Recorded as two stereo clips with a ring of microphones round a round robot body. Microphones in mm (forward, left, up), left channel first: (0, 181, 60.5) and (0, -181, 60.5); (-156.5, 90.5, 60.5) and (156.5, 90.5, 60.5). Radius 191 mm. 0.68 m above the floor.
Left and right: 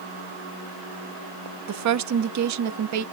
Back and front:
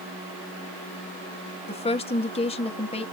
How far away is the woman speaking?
About 0.7 m.